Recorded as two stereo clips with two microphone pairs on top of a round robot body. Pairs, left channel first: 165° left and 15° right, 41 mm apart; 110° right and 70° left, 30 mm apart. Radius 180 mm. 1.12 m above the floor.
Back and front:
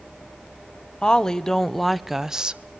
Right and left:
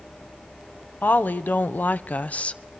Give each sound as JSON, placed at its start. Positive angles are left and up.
{"t": 1.0, "sound": "a woman speaking", "azimuth_deg": -115, "distance_m": 1.2}